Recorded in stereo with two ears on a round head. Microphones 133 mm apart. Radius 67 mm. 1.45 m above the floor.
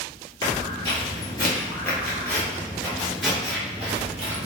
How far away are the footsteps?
About 1.8 m.